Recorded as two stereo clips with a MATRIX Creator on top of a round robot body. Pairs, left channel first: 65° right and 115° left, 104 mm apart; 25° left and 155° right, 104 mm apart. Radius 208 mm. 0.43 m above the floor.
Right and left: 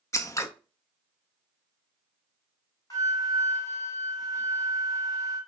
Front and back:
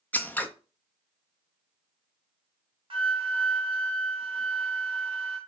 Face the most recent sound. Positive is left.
turn(degrees=-125)